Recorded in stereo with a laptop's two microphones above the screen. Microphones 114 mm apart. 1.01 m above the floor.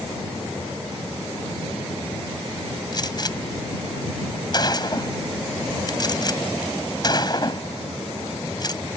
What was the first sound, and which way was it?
A gunshot, 40° left (ahead or behind).